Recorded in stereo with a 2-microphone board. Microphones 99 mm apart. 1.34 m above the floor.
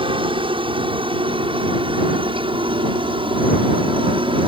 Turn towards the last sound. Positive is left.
turn(degrees=-60)  # may be behind; listen again after turning